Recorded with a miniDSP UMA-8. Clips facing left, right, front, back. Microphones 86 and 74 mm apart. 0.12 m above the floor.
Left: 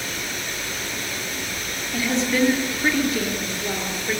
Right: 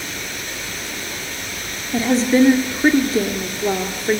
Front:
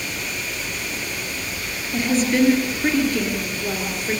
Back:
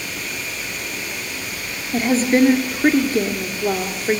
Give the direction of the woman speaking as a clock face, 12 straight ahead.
5 o'clock.